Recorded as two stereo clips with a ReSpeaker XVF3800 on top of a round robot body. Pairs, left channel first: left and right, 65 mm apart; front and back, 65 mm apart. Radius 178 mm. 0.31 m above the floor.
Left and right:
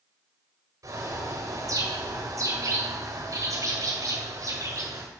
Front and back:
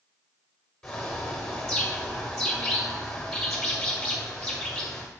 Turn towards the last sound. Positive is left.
turn(degrees=-80)